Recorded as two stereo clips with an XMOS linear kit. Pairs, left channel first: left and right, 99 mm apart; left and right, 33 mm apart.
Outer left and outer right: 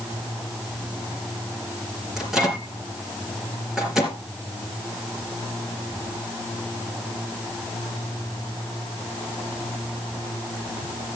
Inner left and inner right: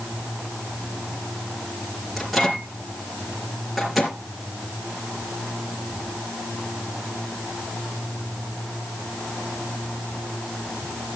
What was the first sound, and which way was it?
A microwave, 5° right (ahead or behind).